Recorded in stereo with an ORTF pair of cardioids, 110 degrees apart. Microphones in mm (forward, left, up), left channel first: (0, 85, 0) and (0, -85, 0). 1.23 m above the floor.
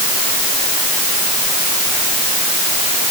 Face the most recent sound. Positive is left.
No sound to turn to.